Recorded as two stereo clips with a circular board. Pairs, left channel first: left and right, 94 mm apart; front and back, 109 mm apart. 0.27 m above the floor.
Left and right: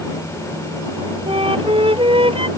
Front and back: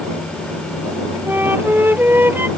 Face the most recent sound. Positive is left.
turn(degrees=-110)